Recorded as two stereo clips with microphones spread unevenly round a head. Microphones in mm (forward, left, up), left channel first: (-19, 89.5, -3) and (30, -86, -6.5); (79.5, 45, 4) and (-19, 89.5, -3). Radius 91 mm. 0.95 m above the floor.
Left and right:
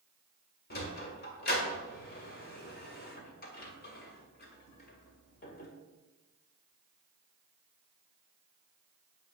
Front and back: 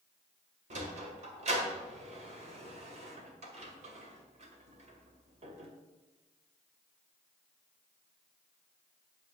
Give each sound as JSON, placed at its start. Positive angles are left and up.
{"t": 0.7, "sound": "a sliding door", "azimuth_deg": 145, "distance_m": 1.9}